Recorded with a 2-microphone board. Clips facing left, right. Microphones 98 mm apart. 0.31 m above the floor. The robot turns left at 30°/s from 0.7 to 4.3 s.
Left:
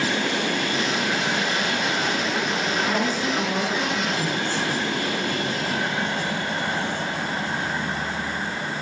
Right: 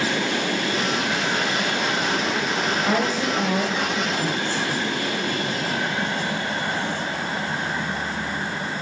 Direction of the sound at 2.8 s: 120° right.